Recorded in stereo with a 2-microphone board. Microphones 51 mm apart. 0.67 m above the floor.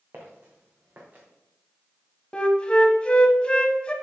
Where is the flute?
25° left (ahead or behind), 0.9 m.